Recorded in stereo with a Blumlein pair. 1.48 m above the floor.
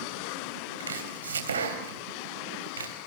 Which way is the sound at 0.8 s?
70° right.